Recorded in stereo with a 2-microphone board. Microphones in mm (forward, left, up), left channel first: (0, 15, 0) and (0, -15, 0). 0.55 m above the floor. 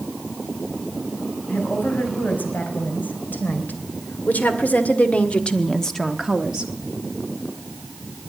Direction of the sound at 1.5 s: 75° left (ahead or behind).